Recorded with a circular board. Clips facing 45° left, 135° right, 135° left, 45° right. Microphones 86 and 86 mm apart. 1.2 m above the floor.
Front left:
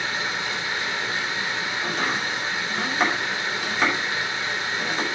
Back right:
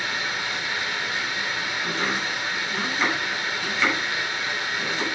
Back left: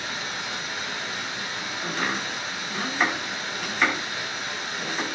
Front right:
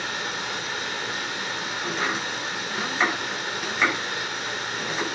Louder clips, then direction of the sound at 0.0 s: Front left 1 dB, front right 2 dB; 20° right.